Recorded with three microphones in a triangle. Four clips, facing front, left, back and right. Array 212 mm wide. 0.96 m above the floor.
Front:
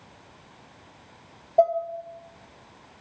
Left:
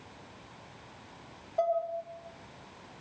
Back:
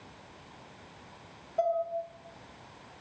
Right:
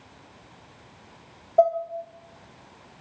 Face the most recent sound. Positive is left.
turn(degrees=-40)